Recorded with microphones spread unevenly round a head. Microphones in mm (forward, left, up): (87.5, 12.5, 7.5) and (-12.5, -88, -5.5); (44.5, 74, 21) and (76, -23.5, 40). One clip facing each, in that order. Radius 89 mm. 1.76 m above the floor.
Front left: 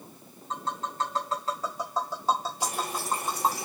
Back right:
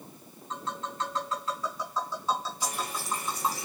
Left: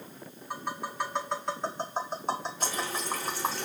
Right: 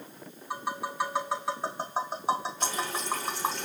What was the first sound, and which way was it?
Tapping, 5° left.